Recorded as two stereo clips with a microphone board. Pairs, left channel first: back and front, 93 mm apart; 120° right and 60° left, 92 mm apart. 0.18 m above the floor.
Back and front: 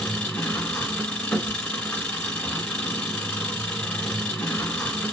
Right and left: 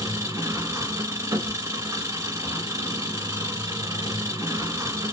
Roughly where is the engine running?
Left.